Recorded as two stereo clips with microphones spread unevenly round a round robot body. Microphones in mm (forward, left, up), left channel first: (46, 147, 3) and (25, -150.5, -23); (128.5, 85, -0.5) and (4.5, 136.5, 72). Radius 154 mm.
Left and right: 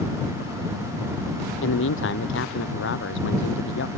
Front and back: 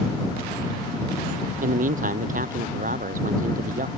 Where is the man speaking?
140° left.